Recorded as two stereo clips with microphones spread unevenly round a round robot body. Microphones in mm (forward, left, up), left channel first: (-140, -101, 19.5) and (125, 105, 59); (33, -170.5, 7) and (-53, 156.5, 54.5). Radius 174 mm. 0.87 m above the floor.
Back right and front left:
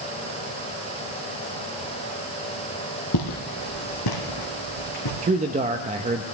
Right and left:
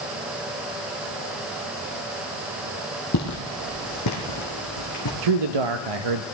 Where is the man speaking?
110° left, 0.7 m.